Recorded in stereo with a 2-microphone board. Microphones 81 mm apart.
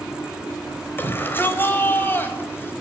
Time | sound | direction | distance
1.0 | a shout | 25° left (ahead or behind) | 4 m